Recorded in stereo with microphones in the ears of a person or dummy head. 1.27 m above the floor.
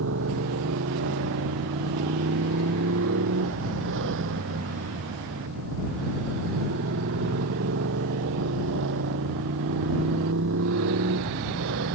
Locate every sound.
0.0 s a motorcycle: 65° right (ahead or behind)